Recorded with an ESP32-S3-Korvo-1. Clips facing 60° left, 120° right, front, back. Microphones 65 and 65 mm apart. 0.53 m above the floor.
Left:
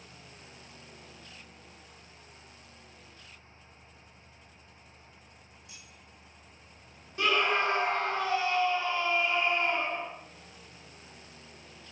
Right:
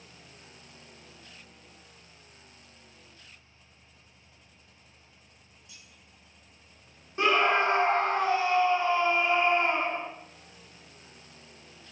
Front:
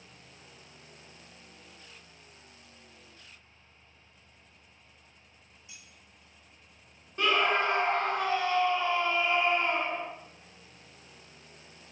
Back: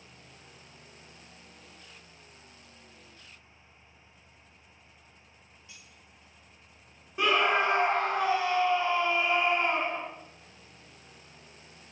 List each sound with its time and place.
5.7 s keys jangling: 75° left, 4 m
7.2 s a scream: 110° right, 1.0 m